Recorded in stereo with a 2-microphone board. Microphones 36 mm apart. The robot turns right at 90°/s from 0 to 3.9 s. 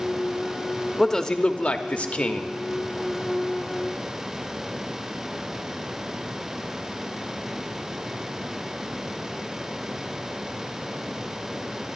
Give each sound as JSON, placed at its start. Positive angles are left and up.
{"t": 1.0, "sound": "a man speaking", "azimuth_deg": 5, "distance_m": 0.9}